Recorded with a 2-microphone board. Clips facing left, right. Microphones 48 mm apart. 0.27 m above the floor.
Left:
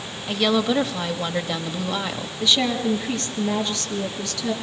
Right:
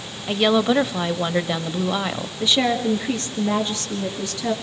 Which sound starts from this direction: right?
A woman speaking, at 2.4 s.